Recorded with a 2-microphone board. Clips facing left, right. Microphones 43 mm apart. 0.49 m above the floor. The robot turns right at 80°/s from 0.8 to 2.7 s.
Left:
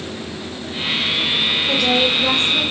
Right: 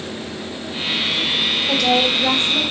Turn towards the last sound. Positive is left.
turn(degrees=-125)